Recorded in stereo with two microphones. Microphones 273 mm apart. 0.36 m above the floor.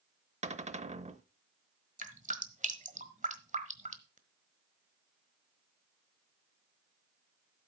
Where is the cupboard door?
25° right (ahead or behind), 0.7 m.